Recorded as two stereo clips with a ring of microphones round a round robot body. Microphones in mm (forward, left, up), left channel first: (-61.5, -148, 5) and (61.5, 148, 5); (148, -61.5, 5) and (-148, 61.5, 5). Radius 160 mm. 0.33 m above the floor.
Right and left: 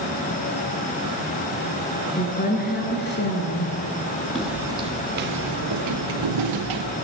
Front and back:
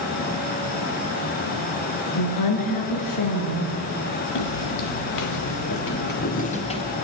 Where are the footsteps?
25° right, 2.5 m; by 6.9 s 55° left, 3.5 m.